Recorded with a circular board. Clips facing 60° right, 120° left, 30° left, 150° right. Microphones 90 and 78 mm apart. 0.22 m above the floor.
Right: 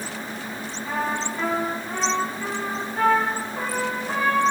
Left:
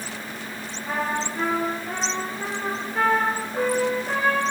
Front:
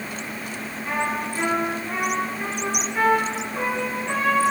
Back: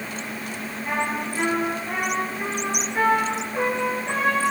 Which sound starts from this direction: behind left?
A trumpet, at 0.8 s.